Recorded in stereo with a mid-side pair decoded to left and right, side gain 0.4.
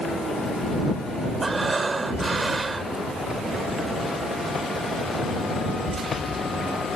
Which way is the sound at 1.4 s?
30° right.